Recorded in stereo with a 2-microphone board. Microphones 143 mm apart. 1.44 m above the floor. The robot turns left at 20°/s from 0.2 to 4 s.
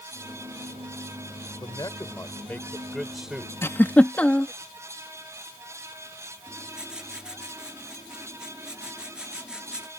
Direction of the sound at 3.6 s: 15° left (ahead or behind).